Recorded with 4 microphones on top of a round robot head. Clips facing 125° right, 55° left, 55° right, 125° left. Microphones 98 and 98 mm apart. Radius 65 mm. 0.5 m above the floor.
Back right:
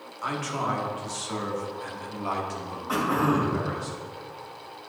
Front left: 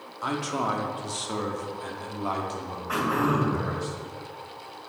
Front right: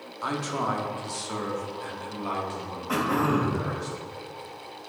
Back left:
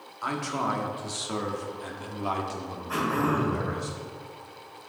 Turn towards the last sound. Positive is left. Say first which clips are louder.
# back right 1 dB, front right 2 dB
turn(degrees=-60)